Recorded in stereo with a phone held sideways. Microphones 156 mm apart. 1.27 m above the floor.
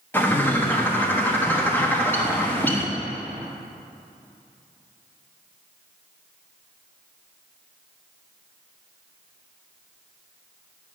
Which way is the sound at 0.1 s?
15° left (ahead or behind).